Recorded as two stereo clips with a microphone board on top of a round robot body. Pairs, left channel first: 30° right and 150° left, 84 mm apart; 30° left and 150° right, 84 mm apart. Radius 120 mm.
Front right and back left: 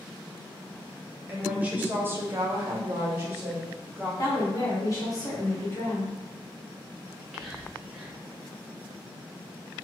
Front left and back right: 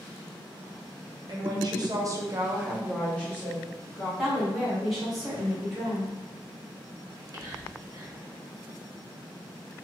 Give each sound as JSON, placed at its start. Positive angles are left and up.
{"t": 1.3, "sound": "a woman speaking", "azimuth_deg": -135, "distance_m": 1.1}
{"t": 4.2, "sound": "a woman speaking", "azimuth_deg": -60, "distance_m": 1.1}
{"t": 7.1, "sound": "whispering", "azimuth_deg": -125, "distance_m": 1.3}